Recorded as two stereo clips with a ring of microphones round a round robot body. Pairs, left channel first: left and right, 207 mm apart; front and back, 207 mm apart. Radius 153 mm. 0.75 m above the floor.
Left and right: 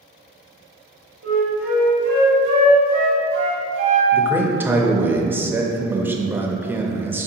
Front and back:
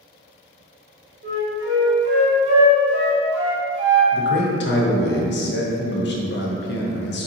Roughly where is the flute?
Behind right.